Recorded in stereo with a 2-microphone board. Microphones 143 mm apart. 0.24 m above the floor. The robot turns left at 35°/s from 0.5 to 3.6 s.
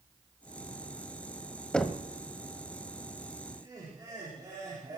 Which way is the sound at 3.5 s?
35° right (ahead or behind).